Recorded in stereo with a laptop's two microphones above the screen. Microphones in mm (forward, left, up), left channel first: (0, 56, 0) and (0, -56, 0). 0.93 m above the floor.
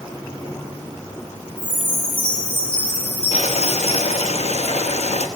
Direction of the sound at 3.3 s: 70° left (ahead or behind).